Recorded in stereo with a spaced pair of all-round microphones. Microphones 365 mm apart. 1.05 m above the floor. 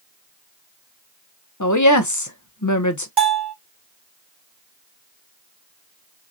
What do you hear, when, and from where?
1.6 s a woman speaking: 50° left (ahead or behind), 1.1 m
3.2 s a bell: 85° right, 1.7 m